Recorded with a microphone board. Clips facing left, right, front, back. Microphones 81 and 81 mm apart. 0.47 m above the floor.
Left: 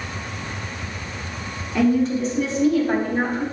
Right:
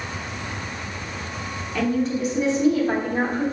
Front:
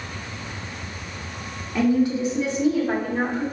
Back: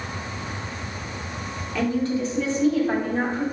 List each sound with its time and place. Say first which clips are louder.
1.8 s a woman speaking: left 4 dB, front 4 dB; 35° left, 0.9 m; by 3.4 s 75° right, 1.3 m